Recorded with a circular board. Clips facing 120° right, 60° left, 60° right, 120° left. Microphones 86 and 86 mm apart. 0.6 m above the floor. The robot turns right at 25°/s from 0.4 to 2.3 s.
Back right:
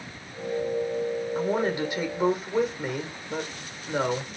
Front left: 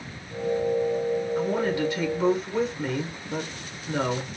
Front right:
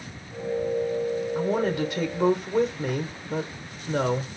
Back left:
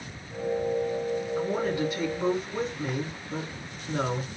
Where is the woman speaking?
65° right, 1.5 m; by 4.4 s 40° right, 1.5 m.